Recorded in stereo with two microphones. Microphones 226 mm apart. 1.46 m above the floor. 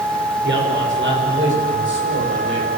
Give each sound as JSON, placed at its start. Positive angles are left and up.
{"t": 0.4, "sound": "a man speaking", "side_deg": -55, "distance_m": 6.0}